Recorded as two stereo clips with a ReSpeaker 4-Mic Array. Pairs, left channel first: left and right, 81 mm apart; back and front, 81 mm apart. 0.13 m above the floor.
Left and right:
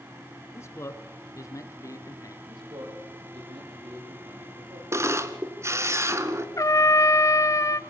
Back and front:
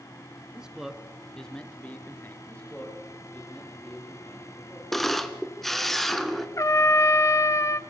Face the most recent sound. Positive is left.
turn(degrees=135)